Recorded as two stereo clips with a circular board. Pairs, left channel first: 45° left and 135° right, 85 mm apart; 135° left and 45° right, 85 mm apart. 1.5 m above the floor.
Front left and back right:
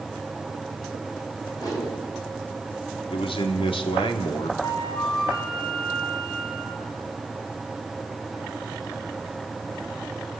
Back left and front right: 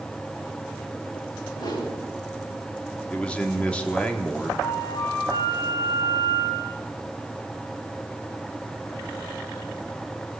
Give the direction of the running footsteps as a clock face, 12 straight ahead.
I don't hear running footsteps.